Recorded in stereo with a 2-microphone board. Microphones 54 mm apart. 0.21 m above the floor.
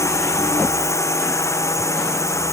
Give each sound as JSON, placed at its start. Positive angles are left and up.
{"t": 0.0, "sound": "a drone", "side_deg": 70}